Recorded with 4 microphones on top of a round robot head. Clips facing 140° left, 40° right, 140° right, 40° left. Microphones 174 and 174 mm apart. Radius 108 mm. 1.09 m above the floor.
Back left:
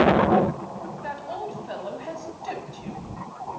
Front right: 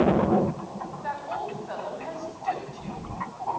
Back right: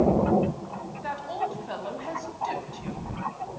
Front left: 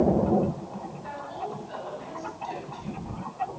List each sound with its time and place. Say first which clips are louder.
1.0 s a woman speaking: front right 1 dB, back right 7 dB; 160° right, 8.5 m; by 3.0 s 170° right, 8.5 m